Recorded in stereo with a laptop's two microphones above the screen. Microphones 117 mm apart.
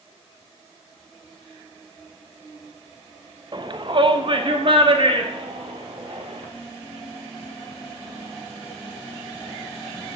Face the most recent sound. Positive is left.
turn(degrees=-50)  # may be behind; listen again after turning